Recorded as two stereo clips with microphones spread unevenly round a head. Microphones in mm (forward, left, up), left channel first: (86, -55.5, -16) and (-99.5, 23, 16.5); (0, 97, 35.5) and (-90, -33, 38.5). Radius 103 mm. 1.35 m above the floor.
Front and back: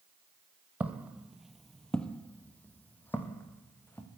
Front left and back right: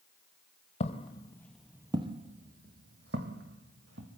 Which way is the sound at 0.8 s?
85° left.